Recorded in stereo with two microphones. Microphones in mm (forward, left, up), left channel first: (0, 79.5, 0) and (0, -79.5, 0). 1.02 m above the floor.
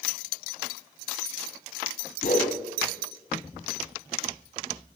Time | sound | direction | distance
2.2 | a whoosh | 60° left (ahead or behind) | 1.9 m